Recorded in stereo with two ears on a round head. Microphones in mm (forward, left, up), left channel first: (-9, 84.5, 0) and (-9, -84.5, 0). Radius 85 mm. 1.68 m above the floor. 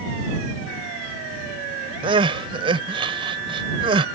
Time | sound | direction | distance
2.0 | crying | 30° right (ahead or behind) | ?